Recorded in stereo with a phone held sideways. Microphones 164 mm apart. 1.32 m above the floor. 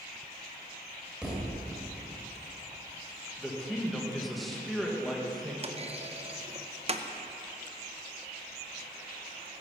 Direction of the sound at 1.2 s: 5° right (ahead or behind).